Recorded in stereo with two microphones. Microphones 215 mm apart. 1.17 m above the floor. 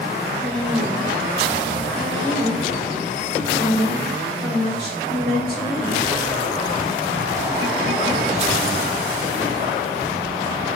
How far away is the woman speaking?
About 1.6 m.